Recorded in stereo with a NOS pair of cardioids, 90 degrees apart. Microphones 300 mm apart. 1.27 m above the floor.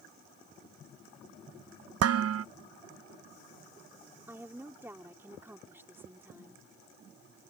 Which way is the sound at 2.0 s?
55° right.